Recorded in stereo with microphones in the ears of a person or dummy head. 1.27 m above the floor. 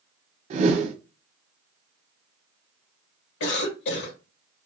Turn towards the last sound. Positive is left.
turn(degrees=70)  # may be behind; listen again after turning